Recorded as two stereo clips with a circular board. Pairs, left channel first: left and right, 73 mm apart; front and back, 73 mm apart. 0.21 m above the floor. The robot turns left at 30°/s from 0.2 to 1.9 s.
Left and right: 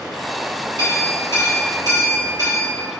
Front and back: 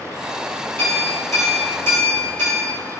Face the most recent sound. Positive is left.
turn(degrees=-105)